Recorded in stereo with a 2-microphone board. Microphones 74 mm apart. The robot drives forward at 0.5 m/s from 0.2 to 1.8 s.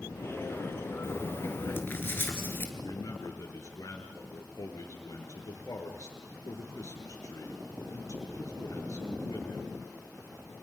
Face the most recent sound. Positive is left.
turn(degrees=50)  # may be behind; listen again after turning